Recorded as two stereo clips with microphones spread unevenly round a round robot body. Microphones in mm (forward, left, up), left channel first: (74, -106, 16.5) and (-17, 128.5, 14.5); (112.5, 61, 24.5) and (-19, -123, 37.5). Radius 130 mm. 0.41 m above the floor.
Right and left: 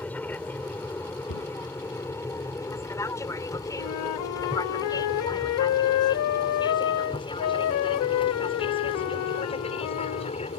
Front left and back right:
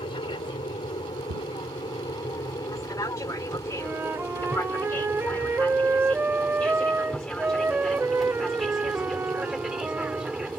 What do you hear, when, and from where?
0.0 s an aircraft: 10° left; by 10.6 s 40° right
1.3 s a cupboard door: 100° right
3.8 s a flute: 45° right